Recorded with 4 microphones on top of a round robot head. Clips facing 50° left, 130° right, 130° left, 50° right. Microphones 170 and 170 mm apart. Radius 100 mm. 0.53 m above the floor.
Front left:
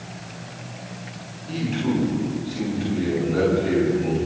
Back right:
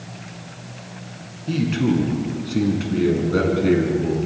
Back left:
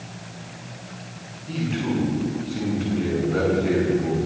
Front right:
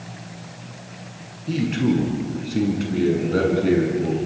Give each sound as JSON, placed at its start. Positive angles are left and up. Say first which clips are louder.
{"t": 1.5, "sound": "a man speaking", "louder": "back right 4 dB, front right 5 dB", "azimuth_deg": -95, "distance_m": 8.0}